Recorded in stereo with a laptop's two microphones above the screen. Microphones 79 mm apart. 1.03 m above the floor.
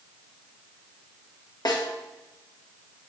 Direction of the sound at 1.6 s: 60° left (ahead or behind).